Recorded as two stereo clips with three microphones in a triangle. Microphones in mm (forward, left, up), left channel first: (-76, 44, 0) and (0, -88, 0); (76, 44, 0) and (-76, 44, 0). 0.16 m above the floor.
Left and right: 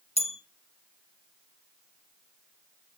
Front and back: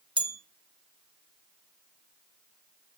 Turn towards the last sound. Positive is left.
turn(degrees=140)